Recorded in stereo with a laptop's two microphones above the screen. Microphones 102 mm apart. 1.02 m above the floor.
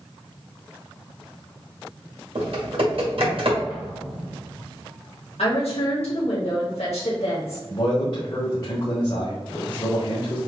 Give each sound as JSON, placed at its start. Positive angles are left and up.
{"t": 2.4, "sound": "typing on a keyboard", "side_deg": -65, "distance_m": 2.0}
{"t": 3.7, "sound": "an explosion", "side_deg": -70, "distance_m": 2.0}
{"t": 5.4, "sound": "a woman speaking", "side_deg": 80, "distance_m": 1.7}
{"t": 7.7, "sound": "a man speaking", "side_deg": 50, "distance_m": 1.4}